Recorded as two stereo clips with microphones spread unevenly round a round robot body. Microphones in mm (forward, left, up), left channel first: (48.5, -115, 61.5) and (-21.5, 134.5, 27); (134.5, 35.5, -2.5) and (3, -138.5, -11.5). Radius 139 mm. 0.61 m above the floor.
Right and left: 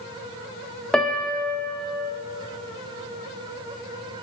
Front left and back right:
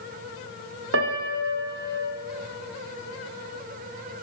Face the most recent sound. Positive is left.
turn(degrees=-165)